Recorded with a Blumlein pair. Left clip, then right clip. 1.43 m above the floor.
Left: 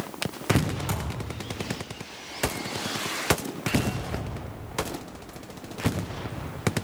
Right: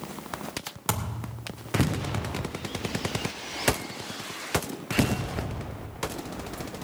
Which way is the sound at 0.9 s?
25° right.